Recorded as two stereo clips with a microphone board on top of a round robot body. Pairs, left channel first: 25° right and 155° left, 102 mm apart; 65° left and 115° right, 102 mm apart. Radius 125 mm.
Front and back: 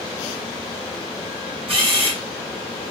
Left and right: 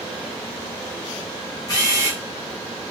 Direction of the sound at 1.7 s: 125° left.